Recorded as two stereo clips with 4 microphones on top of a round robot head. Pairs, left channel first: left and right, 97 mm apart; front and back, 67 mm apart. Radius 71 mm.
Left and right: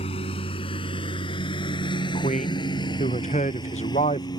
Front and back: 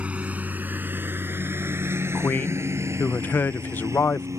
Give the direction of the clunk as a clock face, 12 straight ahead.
No clunk in this recording.